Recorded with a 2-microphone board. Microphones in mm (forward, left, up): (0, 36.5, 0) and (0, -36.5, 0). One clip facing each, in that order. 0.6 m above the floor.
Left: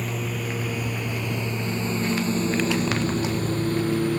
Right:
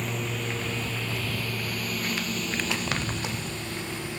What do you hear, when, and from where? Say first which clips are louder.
0.0 s a lawn mower: left 2 dB; 5° left (ahead or behind); by 4.2 s 50° left (ahead or behind)